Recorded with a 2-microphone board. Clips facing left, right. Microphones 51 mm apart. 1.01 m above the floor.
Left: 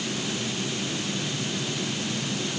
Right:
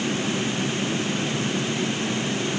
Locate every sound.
Only background noise.